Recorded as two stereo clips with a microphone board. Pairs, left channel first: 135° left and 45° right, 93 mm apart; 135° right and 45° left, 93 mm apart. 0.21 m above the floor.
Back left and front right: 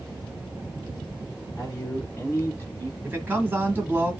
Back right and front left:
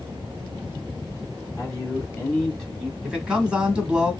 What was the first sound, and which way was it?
A man speaking, straight behind.